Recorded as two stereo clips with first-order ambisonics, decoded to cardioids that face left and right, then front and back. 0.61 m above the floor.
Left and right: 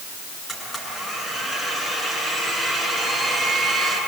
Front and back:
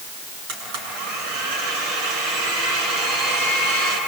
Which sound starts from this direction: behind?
A blender, at 0.5 s.